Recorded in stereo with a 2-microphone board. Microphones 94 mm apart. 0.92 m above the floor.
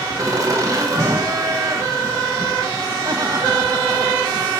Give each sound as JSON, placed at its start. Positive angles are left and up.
{"t": 0.2, "sound": "laughter", "side_deg": -35, "distance_m": 1.3}